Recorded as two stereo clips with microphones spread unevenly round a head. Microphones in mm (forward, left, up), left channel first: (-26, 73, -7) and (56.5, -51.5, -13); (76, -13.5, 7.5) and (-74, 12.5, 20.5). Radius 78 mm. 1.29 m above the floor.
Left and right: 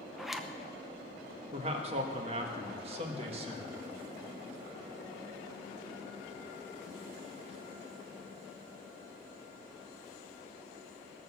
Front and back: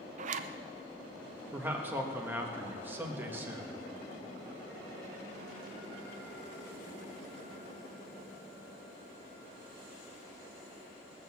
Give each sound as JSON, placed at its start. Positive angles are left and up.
{"t": 0.2, "sound": "a zipper", "azimuth_deg": -145, "distance_m": 0.6}
{"t": 1.5, "sound": "a man speaking", "azimuth_deg": -110, "distance_m": 1.5}